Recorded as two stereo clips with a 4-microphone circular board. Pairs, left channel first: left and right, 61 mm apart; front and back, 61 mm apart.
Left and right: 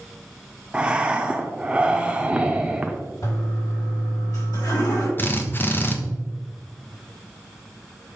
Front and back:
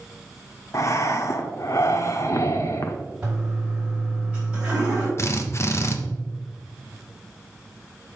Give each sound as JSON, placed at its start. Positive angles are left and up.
{"t": 0.7, "sound": "breathing", "azimuth_deg": -20, "distance_m": 0.9}
{"t": 3.2, "sound": "a toilet flushing", "azimuth_deg": 110, "distance_m": 4.0}
{"t": 5.2, "sound": "a drill", "azimuth_deg": 40, "distance_m": 0.9}